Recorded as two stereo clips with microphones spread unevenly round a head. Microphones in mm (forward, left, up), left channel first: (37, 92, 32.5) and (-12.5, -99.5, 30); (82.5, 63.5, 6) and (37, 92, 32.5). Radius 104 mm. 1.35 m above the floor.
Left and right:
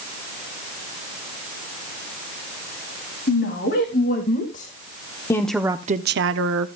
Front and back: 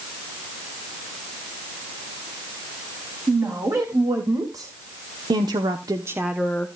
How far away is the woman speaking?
About 3 m.